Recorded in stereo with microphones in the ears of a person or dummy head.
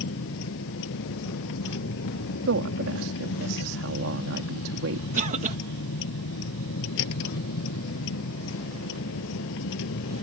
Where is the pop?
No pop in this recording.